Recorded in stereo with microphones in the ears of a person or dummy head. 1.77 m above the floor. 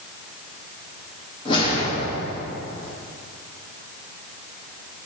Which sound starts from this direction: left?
A whoosh, at 1.4 s.